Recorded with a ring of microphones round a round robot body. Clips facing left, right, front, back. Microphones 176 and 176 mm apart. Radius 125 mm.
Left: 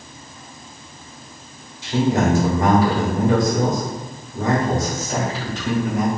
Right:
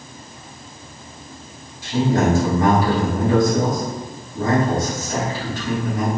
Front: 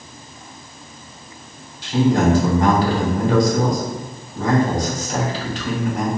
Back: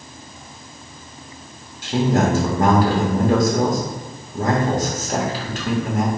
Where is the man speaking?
155° left, 1.4 m.